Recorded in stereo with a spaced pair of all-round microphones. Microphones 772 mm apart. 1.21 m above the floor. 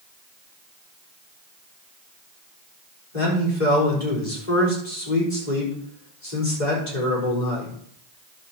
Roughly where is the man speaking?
Left.